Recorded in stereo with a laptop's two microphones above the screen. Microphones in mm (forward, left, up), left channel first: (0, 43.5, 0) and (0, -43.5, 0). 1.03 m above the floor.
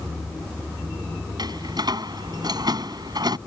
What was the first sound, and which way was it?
A door slam, 55° right (ahead or behind).